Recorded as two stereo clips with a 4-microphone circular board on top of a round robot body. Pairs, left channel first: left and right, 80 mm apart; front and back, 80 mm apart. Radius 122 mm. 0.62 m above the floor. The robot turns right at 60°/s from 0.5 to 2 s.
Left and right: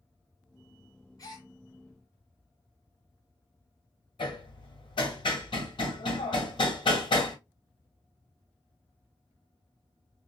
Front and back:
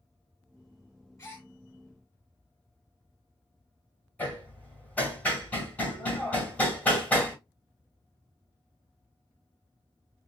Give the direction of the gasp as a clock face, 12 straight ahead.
10 o'clock.